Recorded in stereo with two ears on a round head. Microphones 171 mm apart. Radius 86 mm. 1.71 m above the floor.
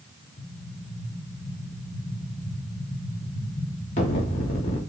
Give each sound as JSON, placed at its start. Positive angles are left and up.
{"t": 0.4, "sound": "an explosion", "side_deg": 40, "distance_m": 1.0}